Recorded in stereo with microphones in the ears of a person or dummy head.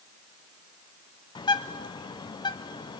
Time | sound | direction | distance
1.4 | a bird | 25° left (ahead or behind) | 0.5 m